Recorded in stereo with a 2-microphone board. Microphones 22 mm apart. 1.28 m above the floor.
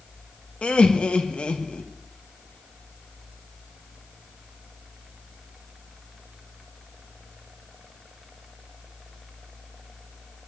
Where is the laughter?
55° left (ahead or behind), 1.0 m.